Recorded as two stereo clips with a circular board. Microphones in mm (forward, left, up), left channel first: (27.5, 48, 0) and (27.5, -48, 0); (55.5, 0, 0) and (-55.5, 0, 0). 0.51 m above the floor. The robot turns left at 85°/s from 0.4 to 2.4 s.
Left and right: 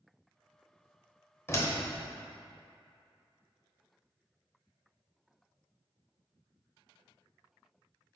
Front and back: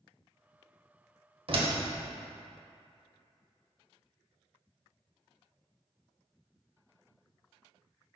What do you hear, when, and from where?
1.5 s a door slam: 155° left, 1.1 m; by 1.7 s 130° left, 1.1 m